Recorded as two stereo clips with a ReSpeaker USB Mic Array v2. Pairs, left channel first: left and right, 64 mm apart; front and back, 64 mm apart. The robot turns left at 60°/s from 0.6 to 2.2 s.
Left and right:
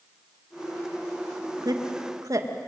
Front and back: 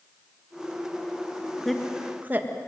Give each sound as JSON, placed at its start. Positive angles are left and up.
{"t": 1.6, "sound": "a woman speaking", "azimuth_deg": -85, "distance_m": 2.0}